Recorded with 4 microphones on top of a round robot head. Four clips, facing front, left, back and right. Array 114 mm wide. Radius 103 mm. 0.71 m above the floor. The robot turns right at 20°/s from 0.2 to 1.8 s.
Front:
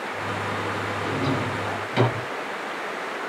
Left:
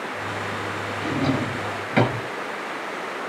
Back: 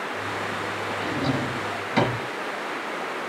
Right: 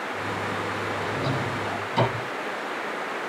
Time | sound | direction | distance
1.0 | a drawer | 95° left | 5 m